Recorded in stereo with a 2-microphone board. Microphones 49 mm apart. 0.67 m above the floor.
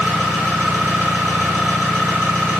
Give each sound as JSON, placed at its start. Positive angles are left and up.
{"t": 0.0, "sound": "an engine running", "side_deg": -60, "distance_m": 0.9}